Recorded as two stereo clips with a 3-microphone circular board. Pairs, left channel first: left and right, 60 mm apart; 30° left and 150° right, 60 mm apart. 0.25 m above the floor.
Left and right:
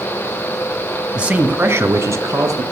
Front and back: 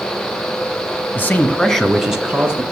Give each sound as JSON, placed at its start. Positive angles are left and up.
{"t": 1.1, "sound": "a man speaking", "azimuth_deg": -20, "distance_m": 1.7}